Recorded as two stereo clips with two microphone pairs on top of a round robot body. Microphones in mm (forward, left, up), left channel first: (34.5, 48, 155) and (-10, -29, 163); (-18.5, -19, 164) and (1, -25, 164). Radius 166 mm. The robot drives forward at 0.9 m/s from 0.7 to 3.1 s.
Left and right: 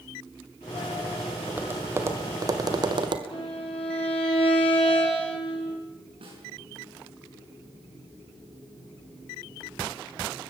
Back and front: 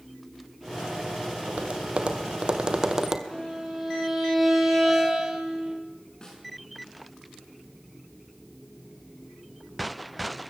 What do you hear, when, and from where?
1.5 s tapping: 45° right, 2.5 m; by 3.2 s 85° right, 1.7 m
3.3 s a violin: 75° left, 6 m
6.2 s a snare drum: 135° right, 7 m